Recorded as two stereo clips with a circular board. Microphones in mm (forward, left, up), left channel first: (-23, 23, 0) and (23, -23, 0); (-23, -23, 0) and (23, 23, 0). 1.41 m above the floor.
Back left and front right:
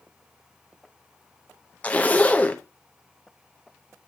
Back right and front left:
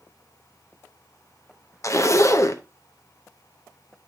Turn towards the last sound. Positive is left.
turn(degrees=-165)